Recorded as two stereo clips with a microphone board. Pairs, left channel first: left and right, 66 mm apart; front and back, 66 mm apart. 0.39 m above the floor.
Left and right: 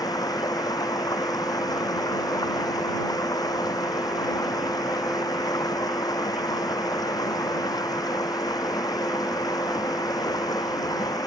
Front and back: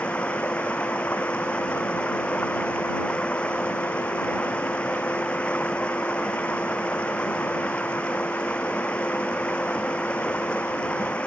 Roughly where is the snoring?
I don't hear snoring.